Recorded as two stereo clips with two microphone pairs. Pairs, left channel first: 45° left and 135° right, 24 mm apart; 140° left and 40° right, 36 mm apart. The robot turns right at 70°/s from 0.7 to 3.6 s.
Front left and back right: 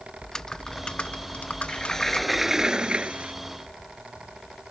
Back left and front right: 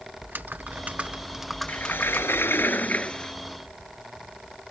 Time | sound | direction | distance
0.2 | typing on a keyboard | 10° right | ?
1.7 | a sliding door | 100° left | ?